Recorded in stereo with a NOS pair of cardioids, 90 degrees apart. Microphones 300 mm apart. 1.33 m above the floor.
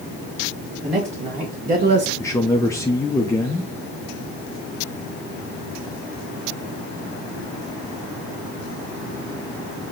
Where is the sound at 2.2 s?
10° left, 0.6 m.